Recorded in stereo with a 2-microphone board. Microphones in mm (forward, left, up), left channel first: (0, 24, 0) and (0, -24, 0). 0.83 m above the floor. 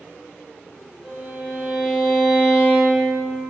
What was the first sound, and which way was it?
A violin, 15° right (ahead or behind).